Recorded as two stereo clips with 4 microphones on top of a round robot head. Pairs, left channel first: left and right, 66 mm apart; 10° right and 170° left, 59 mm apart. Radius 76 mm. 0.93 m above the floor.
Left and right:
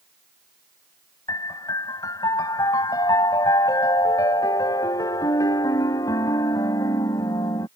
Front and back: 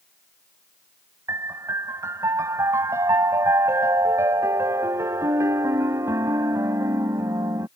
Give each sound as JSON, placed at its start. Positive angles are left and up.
{"t": 1.3, "sound": "a piano", "azimuth_deg": 130}